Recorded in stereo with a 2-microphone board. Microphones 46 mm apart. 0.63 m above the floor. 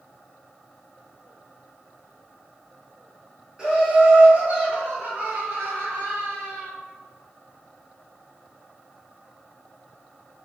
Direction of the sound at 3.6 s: 15° right (ahead or behind).